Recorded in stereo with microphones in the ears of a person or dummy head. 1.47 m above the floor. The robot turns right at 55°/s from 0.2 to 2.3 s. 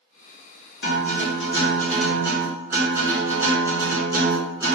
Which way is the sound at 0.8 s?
115° left.